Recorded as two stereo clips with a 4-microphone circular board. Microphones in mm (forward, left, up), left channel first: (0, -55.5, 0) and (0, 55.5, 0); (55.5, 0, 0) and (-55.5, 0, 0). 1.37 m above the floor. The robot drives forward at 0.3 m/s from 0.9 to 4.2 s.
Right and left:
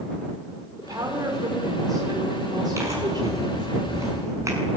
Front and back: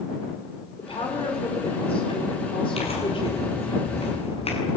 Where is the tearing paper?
25° left, 8.5 m.